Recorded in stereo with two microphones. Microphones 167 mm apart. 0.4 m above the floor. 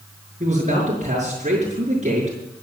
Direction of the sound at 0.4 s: 45° right (ahead or behind).